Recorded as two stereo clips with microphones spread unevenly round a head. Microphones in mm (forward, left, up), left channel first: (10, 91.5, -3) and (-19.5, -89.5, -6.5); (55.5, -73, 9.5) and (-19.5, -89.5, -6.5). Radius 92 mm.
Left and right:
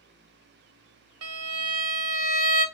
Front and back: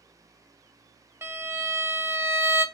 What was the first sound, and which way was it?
A violin, 105° right.